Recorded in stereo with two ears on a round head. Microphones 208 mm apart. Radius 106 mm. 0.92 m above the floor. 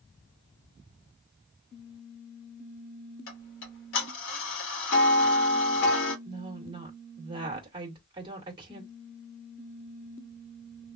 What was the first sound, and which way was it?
Ticking, 55° left (ahead or behind).